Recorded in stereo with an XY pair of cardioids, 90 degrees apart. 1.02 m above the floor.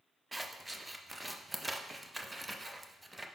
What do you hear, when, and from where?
0.3 s scissors: 10° right, 0.6 m